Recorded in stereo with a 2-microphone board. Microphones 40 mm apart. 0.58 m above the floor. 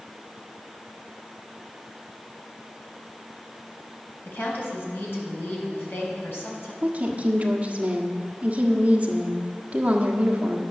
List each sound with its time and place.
4.2 s a woman speaking: 75° left (ahead or behind), 3.5 m
6.8 s a woman speaking: 40° right (ahead or behind), 1.4 m